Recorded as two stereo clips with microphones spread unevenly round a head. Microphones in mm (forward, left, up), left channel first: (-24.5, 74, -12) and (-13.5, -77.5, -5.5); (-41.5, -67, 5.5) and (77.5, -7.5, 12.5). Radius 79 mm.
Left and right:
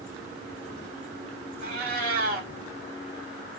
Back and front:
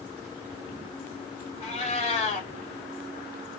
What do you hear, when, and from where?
1.6 s a cat meowing: 110° right, 1.7 m